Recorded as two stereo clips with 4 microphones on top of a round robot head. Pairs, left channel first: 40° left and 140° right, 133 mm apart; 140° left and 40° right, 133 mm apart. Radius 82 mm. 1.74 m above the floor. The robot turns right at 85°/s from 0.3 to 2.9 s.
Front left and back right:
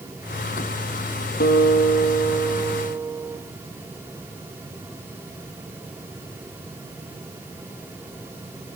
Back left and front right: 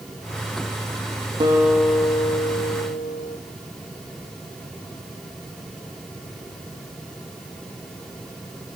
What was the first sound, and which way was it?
A guitar, 20° left.